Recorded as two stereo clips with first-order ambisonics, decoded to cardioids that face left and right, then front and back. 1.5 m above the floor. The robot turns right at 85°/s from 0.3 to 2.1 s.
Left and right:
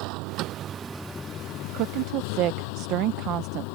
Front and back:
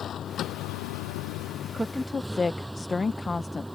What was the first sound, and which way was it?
A vehicle, 60° right.